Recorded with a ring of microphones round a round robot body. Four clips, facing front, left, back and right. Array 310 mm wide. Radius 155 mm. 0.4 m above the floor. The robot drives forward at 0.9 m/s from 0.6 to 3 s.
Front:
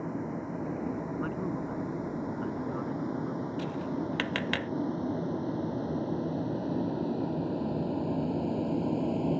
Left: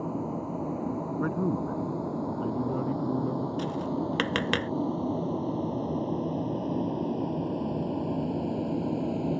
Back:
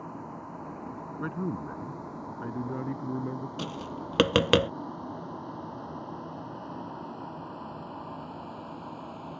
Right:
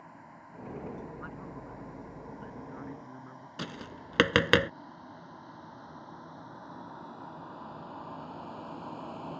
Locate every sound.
0.0 s a vehicle: 65° left; by 9.4 s 45° left
1.2 s a man speaking: 105° left; by 3.5 s 125° left
3.6 s tapping: 150° right